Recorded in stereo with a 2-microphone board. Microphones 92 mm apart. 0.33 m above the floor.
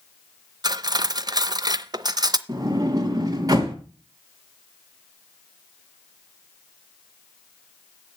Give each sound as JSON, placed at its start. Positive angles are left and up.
{"t": 0.6, "sound": "cutlery clinking", "side_deg": -45, "distance_m": 0.6}
{"t": 2.5, "sound": "a sliding door", "side_deg": -40, "distance_m": 2.5}